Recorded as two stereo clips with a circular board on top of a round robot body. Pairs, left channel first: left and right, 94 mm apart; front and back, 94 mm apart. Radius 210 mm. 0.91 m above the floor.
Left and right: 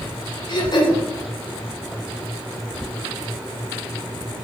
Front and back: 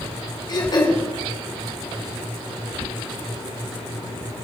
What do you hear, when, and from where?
0.5 s throat clearing: 45° left, 3.5 m